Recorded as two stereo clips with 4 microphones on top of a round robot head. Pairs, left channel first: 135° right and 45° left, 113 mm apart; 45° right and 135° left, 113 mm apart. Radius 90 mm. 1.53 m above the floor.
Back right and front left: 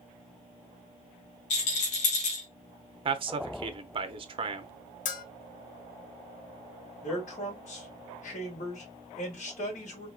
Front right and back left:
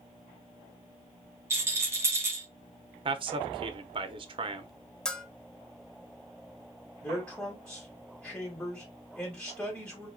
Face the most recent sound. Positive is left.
turn(degrees=-125)